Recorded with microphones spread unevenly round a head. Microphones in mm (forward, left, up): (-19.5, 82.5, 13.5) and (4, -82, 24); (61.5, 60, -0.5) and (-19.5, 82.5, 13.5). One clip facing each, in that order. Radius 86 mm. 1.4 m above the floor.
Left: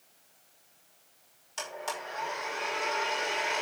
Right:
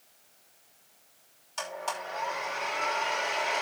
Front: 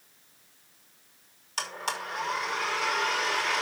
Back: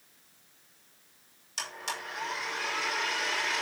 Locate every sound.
1.6 s a blender: 15° left, 5.5 m